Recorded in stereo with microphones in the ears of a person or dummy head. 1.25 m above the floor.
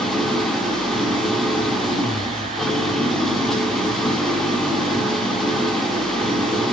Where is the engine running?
5° left (ahead or behind), 1.6 m.